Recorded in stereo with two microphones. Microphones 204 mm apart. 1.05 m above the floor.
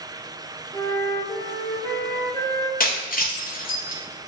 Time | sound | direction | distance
0.7 | a flute | 15° left (ahead or behind) | 0.6 m
2.8 | breaking glass | 45° left (ahead or behind) | 0.6 m